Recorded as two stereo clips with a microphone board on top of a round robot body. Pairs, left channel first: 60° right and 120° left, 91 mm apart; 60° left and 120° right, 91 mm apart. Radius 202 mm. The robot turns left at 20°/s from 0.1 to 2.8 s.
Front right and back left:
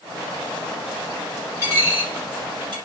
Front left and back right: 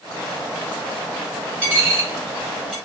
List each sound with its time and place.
1.6 s a dropped coin: 175° right, 0.6 m; by 2.8 s 160° left, 0.6 m